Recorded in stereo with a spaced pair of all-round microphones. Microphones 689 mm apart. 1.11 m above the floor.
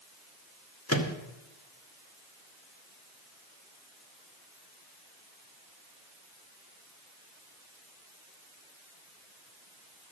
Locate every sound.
0.9 s a microwave: 20° left (ahead or behind), 1.2 m